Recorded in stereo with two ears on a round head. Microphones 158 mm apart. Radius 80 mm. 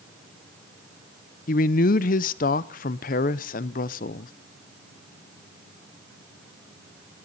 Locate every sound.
1.5 s a man speaking: 45° left (ahead or behind), 0.5 m